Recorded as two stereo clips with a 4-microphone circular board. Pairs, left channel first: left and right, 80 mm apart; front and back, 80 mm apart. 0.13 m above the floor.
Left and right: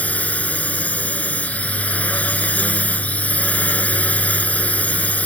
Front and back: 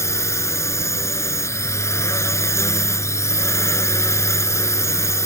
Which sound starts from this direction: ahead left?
A drone, at 0.0 s.